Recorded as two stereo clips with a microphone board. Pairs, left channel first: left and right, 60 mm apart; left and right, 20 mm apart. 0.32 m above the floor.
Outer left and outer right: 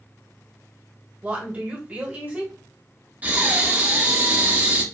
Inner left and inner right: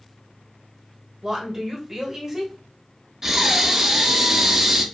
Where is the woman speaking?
25° right (ahead or behind), 1.3 m.